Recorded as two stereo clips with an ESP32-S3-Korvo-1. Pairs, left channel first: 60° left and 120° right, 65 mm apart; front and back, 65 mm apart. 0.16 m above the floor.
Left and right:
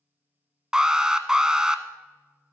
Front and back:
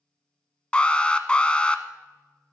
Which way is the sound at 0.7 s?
55° right.